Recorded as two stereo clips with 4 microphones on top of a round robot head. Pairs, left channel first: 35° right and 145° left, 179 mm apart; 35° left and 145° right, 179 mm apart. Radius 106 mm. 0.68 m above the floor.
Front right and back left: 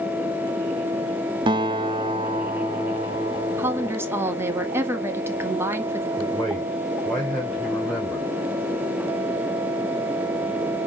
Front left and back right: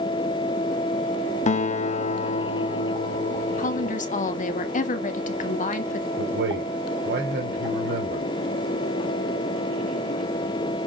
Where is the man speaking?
120° right, 4 m.